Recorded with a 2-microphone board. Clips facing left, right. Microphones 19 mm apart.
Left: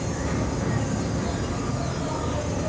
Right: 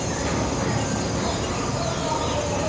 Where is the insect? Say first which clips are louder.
Right 3 dB; 45° right (ahead or behind), 0.9 m.